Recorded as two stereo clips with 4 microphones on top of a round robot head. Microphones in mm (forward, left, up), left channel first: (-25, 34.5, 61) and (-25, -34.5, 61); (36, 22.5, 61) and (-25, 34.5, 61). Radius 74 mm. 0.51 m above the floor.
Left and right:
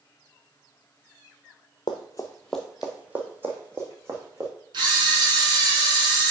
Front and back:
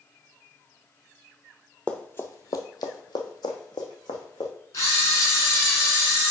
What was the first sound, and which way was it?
Running footsteps, 55° left.